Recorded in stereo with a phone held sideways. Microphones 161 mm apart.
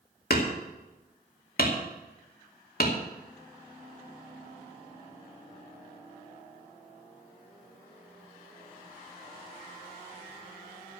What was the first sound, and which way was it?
Hammering, 70° left (ahead or behind).